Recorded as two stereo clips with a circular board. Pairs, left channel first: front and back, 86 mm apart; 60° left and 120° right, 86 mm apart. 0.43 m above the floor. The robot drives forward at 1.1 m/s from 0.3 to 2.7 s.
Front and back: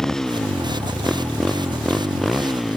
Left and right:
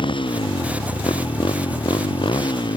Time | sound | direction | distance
0.0 | a motorcycle | 85° left | ?